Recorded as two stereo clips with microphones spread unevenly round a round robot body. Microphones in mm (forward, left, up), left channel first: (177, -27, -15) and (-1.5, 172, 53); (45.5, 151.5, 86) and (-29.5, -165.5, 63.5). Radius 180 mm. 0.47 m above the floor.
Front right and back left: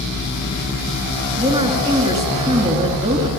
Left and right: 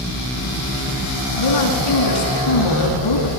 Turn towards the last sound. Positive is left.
turn(degrees=60)